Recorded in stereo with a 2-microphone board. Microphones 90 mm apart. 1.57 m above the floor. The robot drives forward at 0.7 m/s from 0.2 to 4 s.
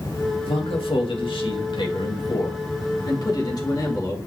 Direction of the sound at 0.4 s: 85° left.